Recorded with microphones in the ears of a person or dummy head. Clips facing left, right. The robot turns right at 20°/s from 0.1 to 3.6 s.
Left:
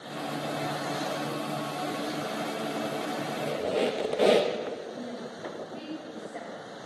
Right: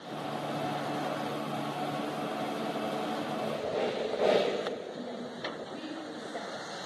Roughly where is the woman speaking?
Centre.